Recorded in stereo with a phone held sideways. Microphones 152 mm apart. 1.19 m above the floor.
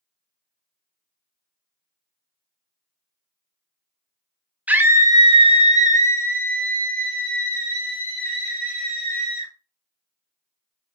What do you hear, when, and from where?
4.7 s a scream: 10° right (ahead or behind), 0.9 m; by 9.5 s 70° right (ahead or behind), 2.5 m